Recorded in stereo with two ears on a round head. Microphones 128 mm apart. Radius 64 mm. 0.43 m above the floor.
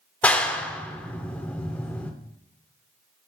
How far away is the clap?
About 0.6 m.